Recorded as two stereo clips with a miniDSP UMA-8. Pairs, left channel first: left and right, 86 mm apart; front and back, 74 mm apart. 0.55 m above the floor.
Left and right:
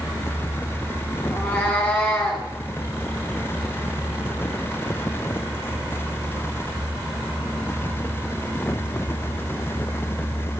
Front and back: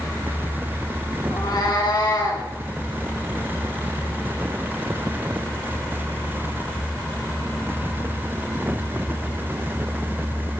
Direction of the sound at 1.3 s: 25° left.